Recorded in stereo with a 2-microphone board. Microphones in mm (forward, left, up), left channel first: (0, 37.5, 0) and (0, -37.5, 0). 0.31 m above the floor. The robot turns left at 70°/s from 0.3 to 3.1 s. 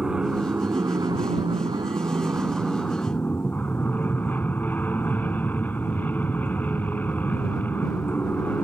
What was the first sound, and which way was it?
An aircraft, 10° right.